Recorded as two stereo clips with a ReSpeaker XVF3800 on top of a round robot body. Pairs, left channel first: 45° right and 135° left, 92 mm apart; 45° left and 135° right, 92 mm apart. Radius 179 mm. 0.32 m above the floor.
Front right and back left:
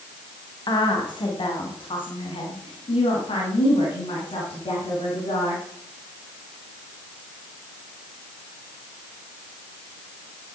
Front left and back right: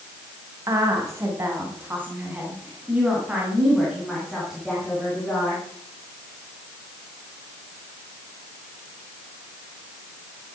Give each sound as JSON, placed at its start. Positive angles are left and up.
{"t": 0.7, "sound": "a woman speaking", "azimuth_deg": -80, "distance_m": 2.5}